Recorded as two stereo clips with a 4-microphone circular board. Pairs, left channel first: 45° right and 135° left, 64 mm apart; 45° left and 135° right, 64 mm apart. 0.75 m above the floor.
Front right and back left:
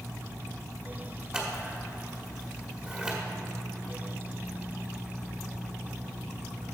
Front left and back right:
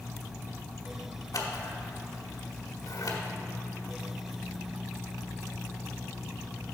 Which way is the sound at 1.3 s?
60° left.